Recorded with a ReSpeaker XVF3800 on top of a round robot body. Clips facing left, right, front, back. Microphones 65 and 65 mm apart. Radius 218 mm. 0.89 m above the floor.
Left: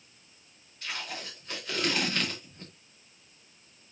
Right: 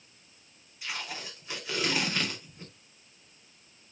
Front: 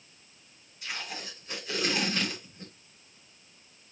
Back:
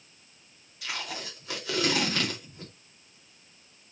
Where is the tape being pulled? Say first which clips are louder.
Even, back 2 dB; 170° right, 4.5 m.